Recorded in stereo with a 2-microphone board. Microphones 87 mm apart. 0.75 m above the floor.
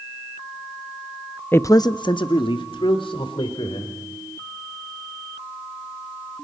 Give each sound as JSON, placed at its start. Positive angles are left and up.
{"t": 1.5, "sound": "a man speaking", "side_deg": 20, "distance_m": 0.6}